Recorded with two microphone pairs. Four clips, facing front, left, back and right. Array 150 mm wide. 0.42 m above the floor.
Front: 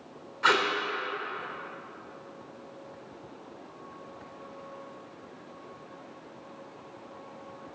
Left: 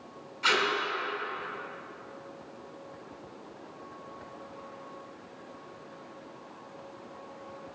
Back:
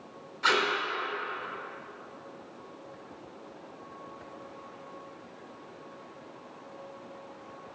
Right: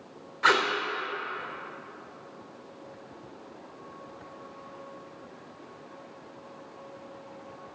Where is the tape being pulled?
60° right, 1.1 m.